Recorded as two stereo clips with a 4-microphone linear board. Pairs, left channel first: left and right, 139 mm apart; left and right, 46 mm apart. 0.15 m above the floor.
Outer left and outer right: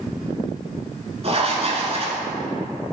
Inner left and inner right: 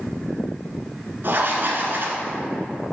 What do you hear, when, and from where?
1.2 s writing: 50° right (ahead or behind), 1.2 m